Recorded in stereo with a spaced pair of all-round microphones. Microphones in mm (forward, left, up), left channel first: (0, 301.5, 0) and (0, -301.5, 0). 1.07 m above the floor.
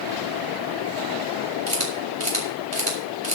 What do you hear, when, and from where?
1.7 s a camera shutter: 70° right (ahead or behind), 4 m